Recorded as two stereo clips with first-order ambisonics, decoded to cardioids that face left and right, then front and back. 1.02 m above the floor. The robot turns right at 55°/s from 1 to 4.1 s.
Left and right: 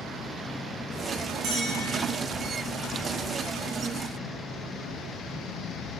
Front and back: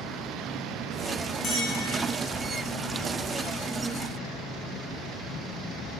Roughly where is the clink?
Ahead right.